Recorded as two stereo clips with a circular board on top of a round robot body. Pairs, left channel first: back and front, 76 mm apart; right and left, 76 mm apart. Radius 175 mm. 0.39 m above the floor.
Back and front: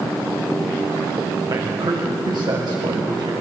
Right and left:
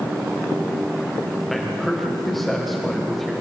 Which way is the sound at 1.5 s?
Straight ahead.